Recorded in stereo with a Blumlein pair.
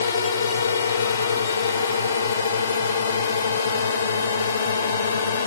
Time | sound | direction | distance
0.0 | a drone | 70° left | ?